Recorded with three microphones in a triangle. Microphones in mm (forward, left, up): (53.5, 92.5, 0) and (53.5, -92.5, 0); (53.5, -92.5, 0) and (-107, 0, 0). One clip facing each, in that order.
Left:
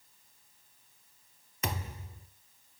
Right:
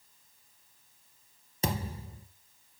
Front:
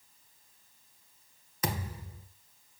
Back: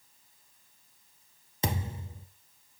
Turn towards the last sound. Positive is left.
turn(degrees=-145)